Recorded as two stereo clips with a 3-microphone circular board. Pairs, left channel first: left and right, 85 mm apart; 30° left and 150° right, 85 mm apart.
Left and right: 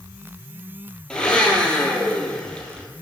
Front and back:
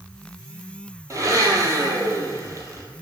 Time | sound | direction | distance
1.1 | a blender | 170° left | 0.6 m